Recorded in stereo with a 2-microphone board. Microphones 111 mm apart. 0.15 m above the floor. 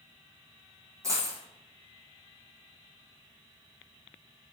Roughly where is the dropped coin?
Right.